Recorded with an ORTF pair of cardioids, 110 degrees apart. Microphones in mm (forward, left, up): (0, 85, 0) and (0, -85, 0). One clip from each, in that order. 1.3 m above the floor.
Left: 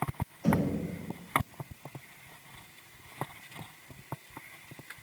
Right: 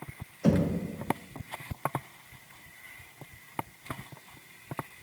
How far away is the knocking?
About 0.6 m.